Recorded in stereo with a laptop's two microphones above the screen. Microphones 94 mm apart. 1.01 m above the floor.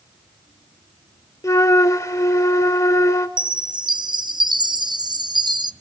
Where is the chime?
50° right (ahead or behind), 0.7 m.